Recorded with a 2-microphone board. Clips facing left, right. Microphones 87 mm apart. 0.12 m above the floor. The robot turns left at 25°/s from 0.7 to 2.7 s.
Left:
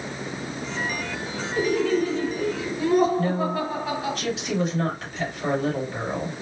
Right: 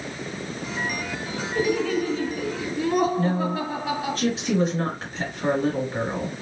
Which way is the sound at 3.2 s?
35° right (ahead or behind).